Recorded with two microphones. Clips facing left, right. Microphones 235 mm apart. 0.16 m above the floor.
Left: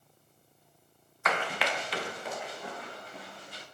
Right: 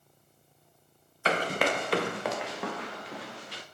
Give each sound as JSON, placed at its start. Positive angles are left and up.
{"t": 1.2, "sound": "running footsteps", "side_deg": -30, "distance_m": 0.7}